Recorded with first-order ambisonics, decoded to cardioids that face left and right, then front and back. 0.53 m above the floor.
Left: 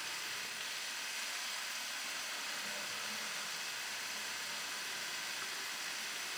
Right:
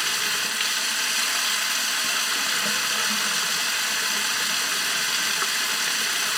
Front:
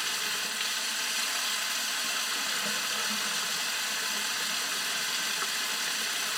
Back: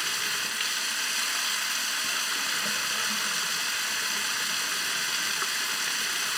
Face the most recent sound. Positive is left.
turn(degrees=-105)